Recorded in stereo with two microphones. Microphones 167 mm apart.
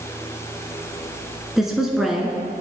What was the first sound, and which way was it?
A woman speaking, centre (ahead or behind).